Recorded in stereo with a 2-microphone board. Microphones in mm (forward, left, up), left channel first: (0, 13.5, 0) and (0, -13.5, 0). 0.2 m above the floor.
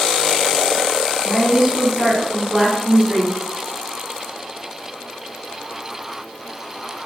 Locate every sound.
1.2 s a woman speaking: 5° left (ahead or behind), 1.6 m